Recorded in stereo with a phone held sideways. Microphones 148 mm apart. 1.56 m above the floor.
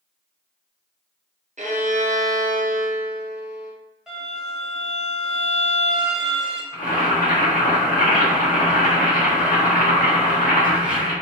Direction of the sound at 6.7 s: 70° left (ahead or behind).